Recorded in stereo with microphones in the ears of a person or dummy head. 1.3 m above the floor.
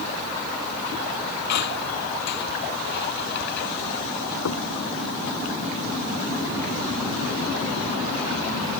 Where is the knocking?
75° left (ahead or behind).